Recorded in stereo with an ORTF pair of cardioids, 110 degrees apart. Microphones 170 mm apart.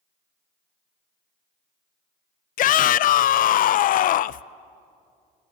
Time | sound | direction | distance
2.6 | a shout | 55° left | 0.7 m